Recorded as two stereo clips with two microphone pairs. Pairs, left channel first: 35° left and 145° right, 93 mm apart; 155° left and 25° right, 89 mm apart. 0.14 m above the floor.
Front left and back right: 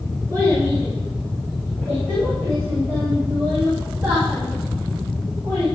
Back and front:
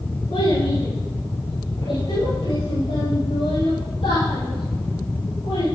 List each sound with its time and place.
0.3 s a child speaking: 160° left, 9 m; by 5.7 s 145° left, 10 m